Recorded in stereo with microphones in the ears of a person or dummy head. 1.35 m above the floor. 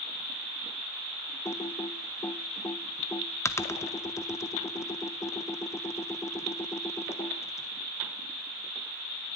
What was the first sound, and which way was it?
Typing on a keyboard, 5° left (ahead or behind).